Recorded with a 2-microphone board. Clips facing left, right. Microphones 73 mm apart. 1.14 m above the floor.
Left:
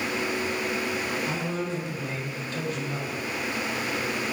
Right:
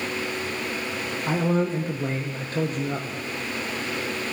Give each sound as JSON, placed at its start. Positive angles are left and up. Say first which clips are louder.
{"t": 1.3, "sound": "a man speaking", "louder": "right 6 dB", "side_deg": -40, "distance_m": 0.5}